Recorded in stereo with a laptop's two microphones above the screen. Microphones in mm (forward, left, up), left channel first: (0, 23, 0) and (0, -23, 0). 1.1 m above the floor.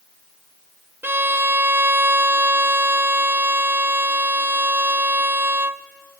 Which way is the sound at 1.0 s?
60° right (ahead or behind).